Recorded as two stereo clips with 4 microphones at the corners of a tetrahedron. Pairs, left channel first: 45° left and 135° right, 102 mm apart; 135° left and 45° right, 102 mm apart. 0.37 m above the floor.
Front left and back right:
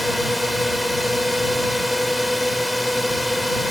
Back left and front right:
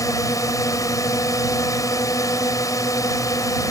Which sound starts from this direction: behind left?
A drone, at 0.0 s.